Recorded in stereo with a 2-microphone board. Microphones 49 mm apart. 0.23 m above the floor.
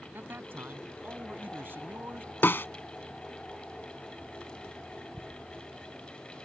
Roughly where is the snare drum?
Left.